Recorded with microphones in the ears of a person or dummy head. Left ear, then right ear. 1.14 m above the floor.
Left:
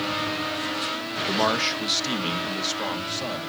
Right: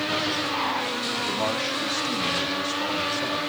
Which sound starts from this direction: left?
A man speaking, at 1.3 s.